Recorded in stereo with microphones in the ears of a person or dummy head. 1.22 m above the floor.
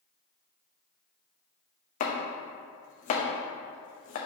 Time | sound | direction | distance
2.0 | chopping | 40° left (ahead or behind) | 1.0 m